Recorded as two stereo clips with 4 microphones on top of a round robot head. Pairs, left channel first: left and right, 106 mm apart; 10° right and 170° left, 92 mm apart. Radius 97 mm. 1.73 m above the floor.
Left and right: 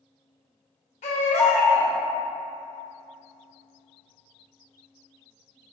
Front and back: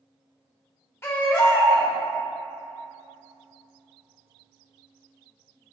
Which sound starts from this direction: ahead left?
A baby crying, at 1.0 s.